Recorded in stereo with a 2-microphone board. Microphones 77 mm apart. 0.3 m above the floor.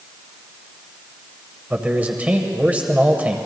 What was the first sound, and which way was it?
A man speaking, 20° right (ahead or behind).